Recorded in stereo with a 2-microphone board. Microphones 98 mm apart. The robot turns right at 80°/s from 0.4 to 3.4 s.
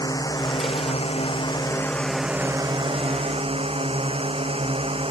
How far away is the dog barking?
I don't hear a dog barking.